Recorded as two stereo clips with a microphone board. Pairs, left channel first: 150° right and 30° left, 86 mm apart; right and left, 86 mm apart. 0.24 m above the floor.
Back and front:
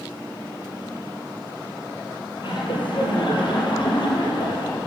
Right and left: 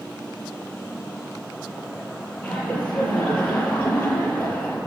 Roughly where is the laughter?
Behind.